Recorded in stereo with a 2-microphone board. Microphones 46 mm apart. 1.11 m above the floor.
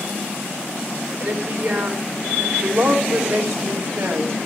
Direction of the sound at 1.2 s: 65° right (ahead or behind).